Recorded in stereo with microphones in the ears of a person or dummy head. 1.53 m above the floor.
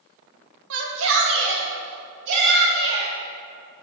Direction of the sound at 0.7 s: 75° right (ahead or behind).